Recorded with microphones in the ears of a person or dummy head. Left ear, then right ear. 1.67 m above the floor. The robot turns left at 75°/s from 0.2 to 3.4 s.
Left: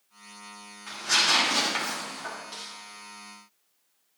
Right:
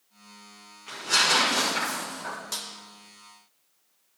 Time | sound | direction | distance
0.9 | tearing paper | 125° left | 6 m
2.5 | a snare drum | 45° right (ahead or behind) | 1.9 m